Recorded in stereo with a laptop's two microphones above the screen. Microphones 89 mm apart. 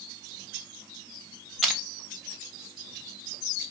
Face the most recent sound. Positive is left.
turn(degrees=0)  # may be behind; listen again after turning